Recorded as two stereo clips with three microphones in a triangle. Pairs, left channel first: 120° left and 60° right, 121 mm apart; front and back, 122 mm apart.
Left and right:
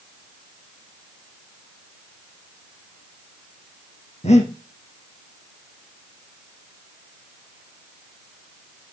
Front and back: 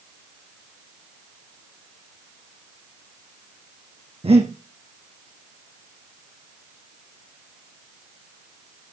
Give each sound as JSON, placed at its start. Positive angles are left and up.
{"t": 4.2, "sound": "breathing", "azimuth_deg": 145, "distance_m": 3.5}